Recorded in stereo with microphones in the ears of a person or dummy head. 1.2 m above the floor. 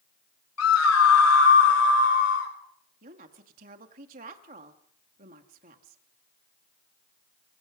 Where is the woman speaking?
40° right (ahead or behind), 1.8 m.